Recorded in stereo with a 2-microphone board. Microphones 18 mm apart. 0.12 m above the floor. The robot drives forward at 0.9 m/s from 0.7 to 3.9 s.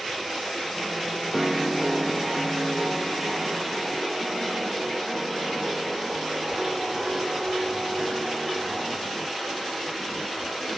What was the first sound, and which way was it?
A piano, 5° right (ahead or behind).